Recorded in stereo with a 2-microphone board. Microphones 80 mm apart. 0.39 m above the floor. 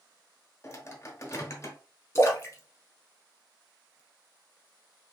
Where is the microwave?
35° left (ahead or behind), 0.9 m.